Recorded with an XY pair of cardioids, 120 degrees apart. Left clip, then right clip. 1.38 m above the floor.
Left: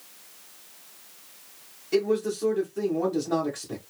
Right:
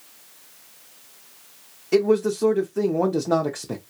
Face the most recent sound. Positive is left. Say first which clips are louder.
# right 5 dB
turn(degrees=-50)